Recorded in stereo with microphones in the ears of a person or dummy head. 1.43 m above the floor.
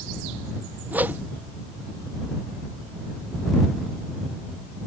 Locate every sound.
0.9 s a whoosh: 15° right (ahead or behind)